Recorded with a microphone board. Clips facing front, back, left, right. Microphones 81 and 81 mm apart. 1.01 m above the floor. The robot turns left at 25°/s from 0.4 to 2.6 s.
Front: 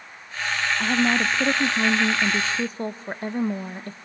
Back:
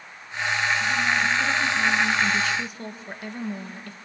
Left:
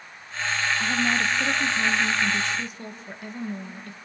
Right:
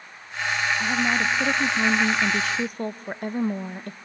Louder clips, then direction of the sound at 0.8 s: Front 2 dB, right 1 dB; 10° right.